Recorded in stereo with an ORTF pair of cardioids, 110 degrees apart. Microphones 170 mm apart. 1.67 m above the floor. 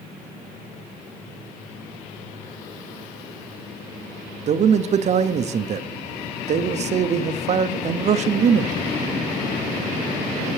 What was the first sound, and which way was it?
A man speaking, 45° right.